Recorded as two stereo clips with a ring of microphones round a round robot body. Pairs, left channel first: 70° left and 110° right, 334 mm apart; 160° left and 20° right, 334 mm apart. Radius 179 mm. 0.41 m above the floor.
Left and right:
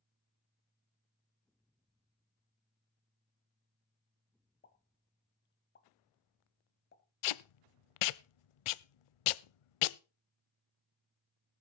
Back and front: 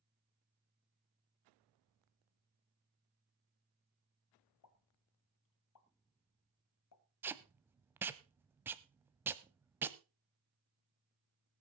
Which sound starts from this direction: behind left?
A pop, at 4.6 s.